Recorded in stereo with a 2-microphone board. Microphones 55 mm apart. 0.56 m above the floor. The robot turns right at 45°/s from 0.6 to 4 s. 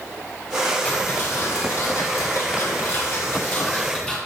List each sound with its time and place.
0.8 s ticking: 25° left, 2.5 m; by 4.2 s 165° left, 2.5 m